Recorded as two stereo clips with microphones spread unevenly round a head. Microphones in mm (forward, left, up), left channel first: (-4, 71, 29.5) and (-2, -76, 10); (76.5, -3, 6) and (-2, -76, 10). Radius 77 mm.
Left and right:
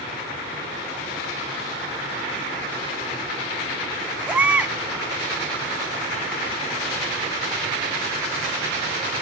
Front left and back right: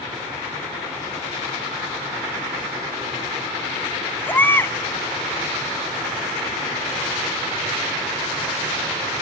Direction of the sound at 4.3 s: 5° right.